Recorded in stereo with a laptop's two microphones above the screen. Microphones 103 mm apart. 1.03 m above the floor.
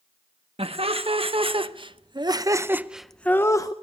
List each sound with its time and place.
0.6 s laughter: 70° right (ahead or behind), 1.4 m; by 3.7 s 40° left (ahead or behind), 0.6 m